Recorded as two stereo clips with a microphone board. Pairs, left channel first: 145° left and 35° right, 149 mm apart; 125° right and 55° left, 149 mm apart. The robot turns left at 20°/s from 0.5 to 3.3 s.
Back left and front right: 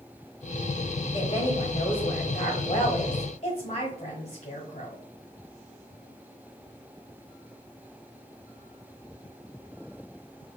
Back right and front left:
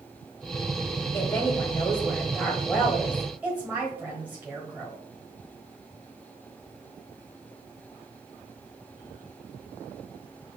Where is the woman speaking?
175° left, 1.3 m; by 5.0 s 130° left, 1.3 m.